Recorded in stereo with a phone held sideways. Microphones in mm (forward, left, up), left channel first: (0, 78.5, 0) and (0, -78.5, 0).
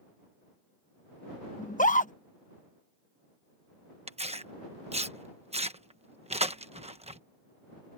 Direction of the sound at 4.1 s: 40° right (ahead or behind).